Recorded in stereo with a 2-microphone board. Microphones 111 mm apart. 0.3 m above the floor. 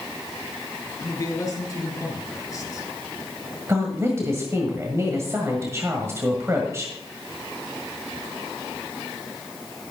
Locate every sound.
1.0 s a man speaking: 30° left (ahead or behind), 4 m
3.7 s a woman speaking: 25° right (ahead or behind), 1.7 m